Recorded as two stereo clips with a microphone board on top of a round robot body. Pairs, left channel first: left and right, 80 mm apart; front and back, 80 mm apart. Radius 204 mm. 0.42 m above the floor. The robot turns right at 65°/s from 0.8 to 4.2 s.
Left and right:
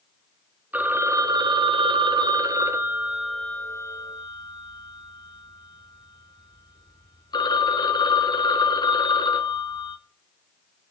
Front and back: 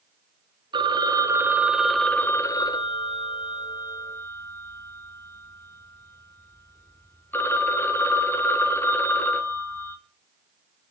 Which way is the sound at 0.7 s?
160° right.